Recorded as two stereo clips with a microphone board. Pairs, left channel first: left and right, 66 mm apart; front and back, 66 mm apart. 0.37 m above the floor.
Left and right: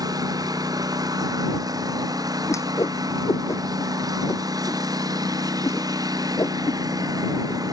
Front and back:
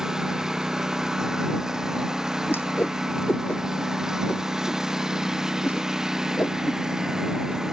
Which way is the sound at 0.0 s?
100° right.